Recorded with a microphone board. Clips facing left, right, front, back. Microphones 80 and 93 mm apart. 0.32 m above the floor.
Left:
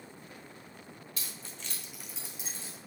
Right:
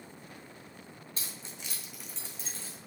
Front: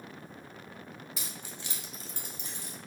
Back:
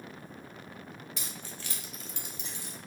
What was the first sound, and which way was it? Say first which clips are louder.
Keys jangling: even, even; 85° right.